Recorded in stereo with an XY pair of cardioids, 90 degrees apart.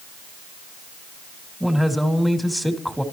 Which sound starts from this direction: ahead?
A man speaking, at 1.6 s.